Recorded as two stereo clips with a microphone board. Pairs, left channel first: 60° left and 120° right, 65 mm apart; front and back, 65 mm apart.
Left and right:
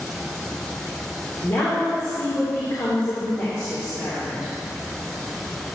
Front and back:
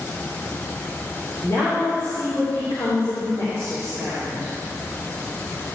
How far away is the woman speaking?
About 2 m.